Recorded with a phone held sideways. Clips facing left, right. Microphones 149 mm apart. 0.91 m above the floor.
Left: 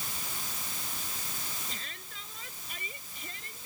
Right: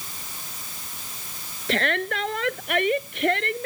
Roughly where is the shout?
Right.